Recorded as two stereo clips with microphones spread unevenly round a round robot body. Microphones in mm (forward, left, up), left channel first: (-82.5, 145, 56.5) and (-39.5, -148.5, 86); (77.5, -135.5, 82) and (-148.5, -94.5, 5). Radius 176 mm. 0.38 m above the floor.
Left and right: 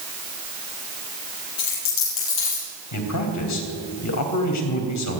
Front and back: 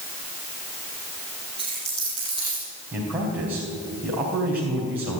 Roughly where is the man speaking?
Left.